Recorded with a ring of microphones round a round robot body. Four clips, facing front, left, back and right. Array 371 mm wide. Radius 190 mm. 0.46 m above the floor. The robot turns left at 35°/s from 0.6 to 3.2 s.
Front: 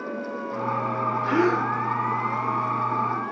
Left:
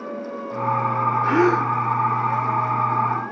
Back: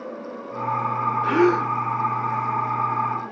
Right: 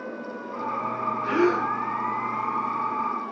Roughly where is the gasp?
Behind left.